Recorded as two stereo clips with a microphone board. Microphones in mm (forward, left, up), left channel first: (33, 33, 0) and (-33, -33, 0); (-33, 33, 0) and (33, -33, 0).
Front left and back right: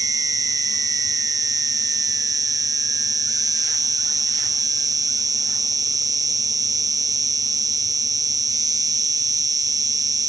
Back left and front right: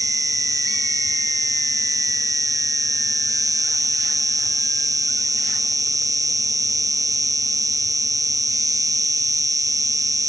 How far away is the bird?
I don't hear a bird.